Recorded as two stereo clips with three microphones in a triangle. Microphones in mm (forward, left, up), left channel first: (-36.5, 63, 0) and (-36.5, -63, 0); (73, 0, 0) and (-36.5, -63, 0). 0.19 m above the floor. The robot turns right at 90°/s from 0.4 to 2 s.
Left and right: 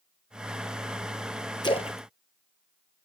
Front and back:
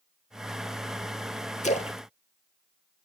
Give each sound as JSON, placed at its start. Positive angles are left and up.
{"t": 1.6, "sound": "a splash", "azimuth_deg": 40, "distance_m": 0.8}